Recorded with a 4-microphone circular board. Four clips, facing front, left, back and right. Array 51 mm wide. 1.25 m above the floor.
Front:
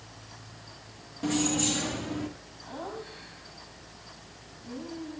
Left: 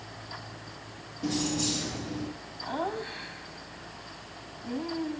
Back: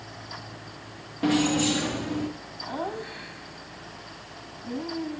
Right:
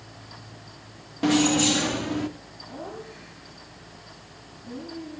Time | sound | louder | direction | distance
1.2 | keys jangling | right 10 dB, back 5 dB | 115° right | 1.2 m
2.6 | laughter | left 6 dB, back 6 dB | 125° left | 7 m